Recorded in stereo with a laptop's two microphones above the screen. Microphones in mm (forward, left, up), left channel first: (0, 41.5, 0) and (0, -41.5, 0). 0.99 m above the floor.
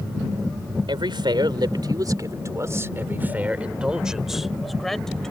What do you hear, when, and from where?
0.9 s a man speaking: 70° right (ahead or behind); by 5.3 s 10° left (ahead or behind)